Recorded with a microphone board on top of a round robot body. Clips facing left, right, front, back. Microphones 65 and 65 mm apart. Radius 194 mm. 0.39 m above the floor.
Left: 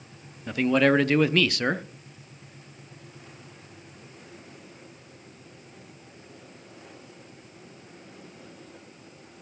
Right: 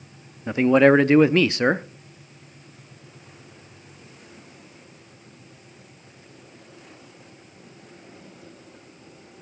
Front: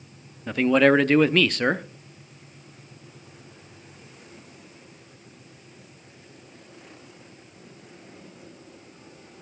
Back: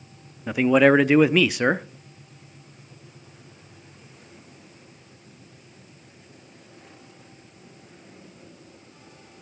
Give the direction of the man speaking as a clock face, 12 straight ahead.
4 o'clock.